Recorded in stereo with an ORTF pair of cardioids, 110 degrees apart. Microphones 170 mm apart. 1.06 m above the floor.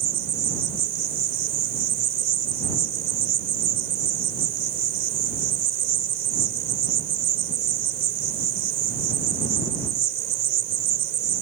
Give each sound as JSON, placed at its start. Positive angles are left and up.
{"t": 0.0, "sound": "an insect", "azimuth_deg": -65}